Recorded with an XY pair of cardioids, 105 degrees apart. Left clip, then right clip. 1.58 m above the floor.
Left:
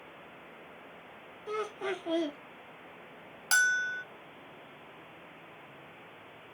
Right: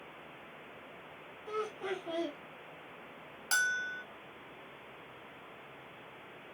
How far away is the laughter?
About 1.1 m.